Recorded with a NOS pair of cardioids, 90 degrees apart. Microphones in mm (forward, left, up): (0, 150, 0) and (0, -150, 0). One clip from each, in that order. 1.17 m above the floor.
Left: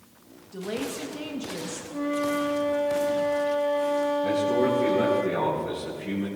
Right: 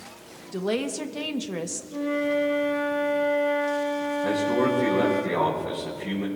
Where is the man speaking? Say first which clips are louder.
Even; 15° right, 4.5 m.